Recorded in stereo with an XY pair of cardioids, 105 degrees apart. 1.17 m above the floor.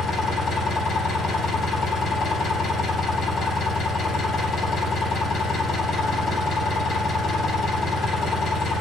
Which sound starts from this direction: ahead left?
An engine running, at 0.0 s.